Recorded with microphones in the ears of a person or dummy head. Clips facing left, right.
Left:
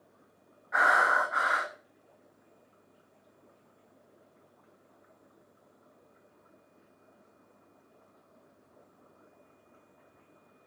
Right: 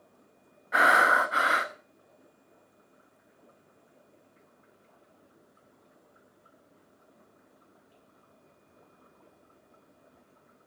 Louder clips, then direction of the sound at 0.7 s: Right 3 dB; 40° right (ahead or behind).